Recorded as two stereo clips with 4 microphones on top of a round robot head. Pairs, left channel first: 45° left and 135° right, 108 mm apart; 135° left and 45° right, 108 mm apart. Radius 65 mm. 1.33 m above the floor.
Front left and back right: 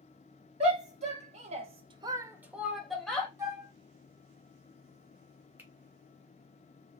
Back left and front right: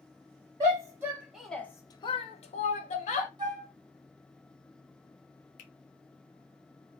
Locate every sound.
0.6 s a shout: 105° right, 1.1 m; by 3.3 s 130° left, 1.3 m
3.4 s a flute: 85° right, 1.0 m
5.6 s a finger snap: 150° left, 0.7 m